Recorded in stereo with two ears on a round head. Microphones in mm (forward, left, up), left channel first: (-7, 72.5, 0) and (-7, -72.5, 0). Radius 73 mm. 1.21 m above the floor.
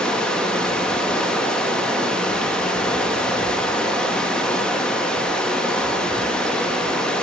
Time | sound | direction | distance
0.0 | running water | 5° left (ahead or behind) | 1.0 m